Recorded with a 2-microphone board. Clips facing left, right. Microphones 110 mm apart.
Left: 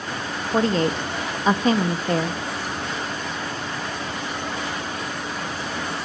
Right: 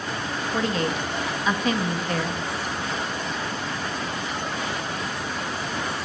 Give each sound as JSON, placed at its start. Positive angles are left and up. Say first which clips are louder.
{"t": 0.5, "sound": "a woman speaking", "louder": "left 6 dB", "side_deg": 35, "distance_m": 0.6}